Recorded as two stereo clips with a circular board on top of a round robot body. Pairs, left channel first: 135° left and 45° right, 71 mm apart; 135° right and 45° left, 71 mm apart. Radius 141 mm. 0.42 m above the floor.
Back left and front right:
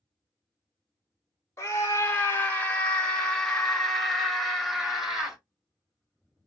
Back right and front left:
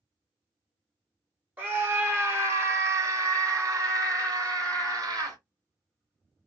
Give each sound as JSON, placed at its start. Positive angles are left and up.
{"t": 1.6, "sound": "a scream", "azimuth_deg": 100, "distance_m": 1.7}